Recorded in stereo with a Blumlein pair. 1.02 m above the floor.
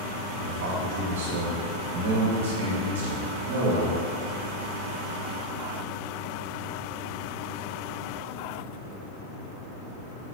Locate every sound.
0.4 s a man speaking: 60° right, 1.1 m